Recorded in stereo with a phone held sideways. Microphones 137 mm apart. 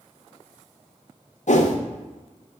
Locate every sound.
1.5 s a whoosh: 60° left (ahead or behind), 0.5 m